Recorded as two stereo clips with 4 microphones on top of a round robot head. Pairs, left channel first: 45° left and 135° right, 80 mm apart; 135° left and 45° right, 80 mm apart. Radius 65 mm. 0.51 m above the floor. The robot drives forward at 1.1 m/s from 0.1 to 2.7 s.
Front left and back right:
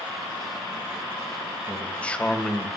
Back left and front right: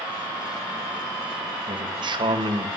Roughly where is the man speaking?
Ahead right.